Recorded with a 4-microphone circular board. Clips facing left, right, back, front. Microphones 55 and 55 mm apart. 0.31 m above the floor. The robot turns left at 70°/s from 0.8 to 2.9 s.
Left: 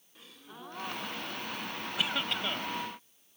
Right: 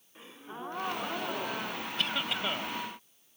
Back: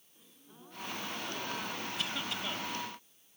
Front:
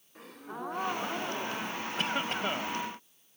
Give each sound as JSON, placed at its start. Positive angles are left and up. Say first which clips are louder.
{"t": 0.1, "sound": "a gasp", "louder": "right 6 dB, front 17 dB", "azimuth_deg": -25}
{"t": 2.0, "sound": "a cough", "louder": "even, front 9 dB", "azimuth_deg": 15}